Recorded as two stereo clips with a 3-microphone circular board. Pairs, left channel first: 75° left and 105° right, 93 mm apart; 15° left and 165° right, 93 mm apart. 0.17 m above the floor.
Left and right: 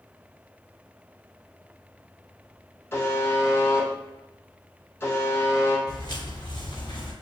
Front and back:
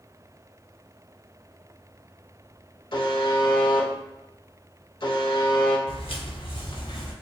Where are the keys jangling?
No keys jangling in this recording.